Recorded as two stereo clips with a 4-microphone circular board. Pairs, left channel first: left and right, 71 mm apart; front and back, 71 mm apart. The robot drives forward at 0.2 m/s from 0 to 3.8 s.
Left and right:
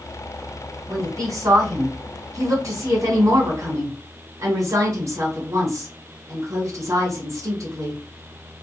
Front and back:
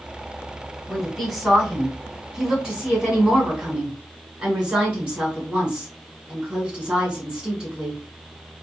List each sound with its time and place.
0.9 s a woman speaking: 95° right, 2 m; by 8.0 s 110° right, 2 m